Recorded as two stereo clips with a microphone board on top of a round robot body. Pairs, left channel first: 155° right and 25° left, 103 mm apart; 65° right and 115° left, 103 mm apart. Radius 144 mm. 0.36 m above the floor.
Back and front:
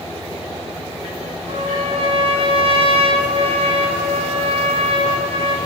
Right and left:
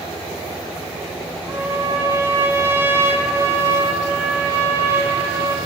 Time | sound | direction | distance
1.5 | a trumpet | 45° left | 3.5 m